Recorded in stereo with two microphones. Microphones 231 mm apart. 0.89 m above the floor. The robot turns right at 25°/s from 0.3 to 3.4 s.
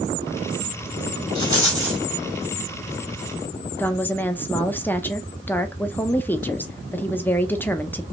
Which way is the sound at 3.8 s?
10° left (ahead or behind).